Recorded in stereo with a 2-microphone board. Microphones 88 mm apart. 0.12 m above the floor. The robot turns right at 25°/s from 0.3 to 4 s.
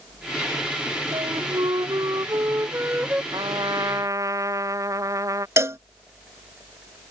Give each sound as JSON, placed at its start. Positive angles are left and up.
{"t": 1.1, "sound": "a flute", "azimuth_deg": -70}
{"t": 3.3, "sound": "a trumpet", "side_deg": -55}
{"t": 5.6, "sound": "a cowbell", "side_deg": -35}